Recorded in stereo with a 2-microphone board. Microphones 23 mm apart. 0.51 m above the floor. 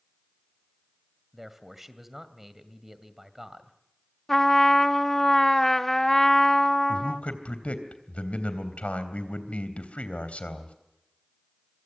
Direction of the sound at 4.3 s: 15° left (ahead or behind).